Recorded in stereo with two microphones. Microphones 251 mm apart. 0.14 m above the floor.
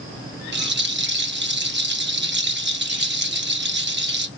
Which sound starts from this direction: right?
A rattle, at 0.5 s.